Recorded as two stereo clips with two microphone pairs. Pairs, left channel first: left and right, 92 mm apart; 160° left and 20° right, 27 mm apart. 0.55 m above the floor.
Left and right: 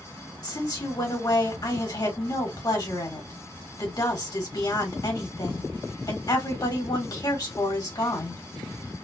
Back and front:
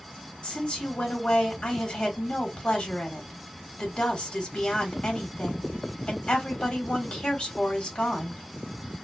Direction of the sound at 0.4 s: 120° left.